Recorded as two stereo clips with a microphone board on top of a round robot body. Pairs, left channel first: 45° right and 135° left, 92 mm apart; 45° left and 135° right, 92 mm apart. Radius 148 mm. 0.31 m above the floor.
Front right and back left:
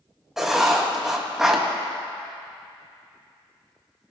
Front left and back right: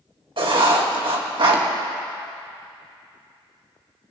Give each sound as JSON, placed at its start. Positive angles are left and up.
{"t": 0.4, "sound": "writing", "azimuth_deg": -140, "distance_m": 2.5}